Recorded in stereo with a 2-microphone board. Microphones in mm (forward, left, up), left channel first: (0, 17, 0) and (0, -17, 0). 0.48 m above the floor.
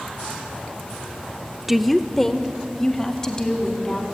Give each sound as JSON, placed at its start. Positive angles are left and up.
{"t": 1.7, "sound": "a woman speaking", "side_deg": -10, "distance_m": 0.8}